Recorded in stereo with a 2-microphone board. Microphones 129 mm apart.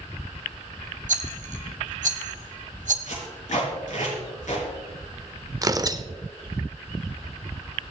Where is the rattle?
75° right (ahead or behind), 1.1 m.